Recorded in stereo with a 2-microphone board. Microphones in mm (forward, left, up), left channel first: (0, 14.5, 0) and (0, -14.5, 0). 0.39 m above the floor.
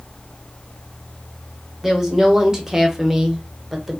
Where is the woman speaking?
15° right (ahead or behind), 1.1 m; by 4.0 s 10° right (ahead or behind), 1.0 m.